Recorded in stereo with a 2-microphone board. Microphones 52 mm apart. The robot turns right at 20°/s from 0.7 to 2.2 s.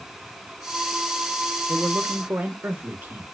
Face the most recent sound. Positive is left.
turn(degrees=-35)  # may be behind; listen again after turning